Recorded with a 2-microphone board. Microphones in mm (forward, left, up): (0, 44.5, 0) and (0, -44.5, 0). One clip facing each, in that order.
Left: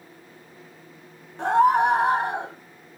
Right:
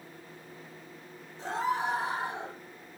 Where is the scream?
65° left (ahead or behind), 3.5 m.